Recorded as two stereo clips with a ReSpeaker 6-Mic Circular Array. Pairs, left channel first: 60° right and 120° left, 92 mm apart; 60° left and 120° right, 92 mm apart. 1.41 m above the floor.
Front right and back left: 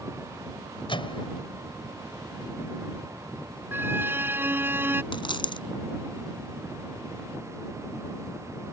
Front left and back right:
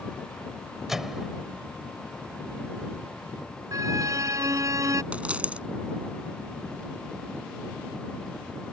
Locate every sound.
0.9 s a microwave: 35° right
3.7 s a violin: 175° right
5.1 s a dropped coin: 45° right